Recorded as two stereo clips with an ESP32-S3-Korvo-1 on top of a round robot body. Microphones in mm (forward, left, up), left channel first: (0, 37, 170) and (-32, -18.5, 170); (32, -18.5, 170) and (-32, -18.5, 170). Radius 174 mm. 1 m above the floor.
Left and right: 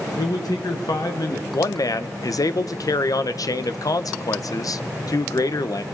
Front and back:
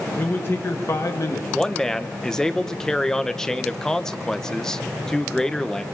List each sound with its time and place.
0.2 s a man speaking: 60° left, 1.5 m; by 1.4 s 30° left, 1.6 m
1.5 s a man speaking: 80° left, 0.9 m